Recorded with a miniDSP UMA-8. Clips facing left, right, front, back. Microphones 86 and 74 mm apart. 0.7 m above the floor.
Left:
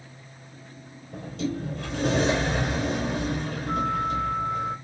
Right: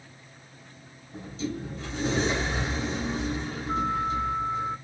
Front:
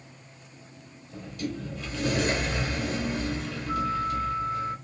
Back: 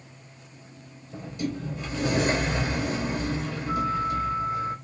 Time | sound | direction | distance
1.1 | a sliding door | 115° left | 3 m